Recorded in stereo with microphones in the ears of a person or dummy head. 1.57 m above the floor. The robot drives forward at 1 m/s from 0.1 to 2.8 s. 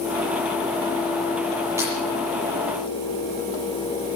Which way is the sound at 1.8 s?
20° right (ahead or behind).